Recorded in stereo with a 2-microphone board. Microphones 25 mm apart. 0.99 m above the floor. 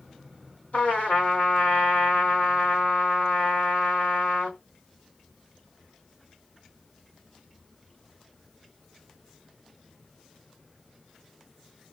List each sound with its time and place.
0.7 s a trumpet: 75° left (ahead or behind), 2.5 m